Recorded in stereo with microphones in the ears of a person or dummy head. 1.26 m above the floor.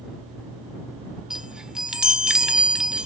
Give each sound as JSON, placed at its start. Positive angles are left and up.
{"t": 1.3, "sound": "a chime", "side_deg": -5}